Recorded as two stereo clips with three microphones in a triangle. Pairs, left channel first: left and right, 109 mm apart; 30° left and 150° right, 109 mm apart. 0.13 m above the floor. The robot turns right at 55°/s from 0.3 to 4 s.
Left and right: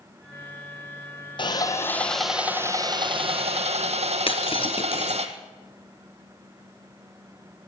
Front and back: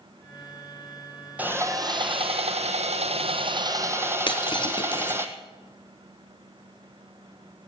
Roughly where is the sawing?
Behind left.